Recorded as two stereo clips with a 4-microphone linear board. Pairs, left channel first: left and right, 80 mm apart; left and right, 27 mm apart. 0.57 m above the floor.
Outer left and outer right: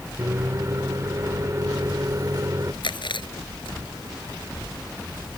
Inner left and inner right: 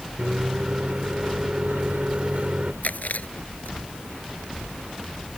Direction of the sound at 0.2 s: 50° right (ahead or behind).